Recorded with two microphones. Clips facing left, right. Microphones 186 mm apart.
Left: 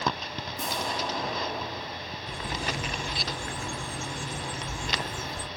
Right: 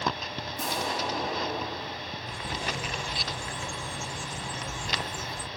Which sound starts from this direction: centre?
An explosion, at 0.6 s.